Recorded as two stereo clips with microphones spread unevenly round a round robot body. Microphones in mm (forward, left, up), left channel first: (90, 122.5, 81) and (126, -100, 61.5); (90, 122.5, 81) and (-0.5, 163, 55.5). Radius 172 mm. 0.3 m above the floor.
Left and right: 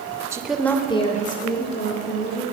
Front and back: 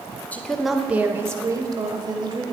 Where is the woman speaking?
110° right, 0.9 m; by 2.4 s 130° left, 1.7 m.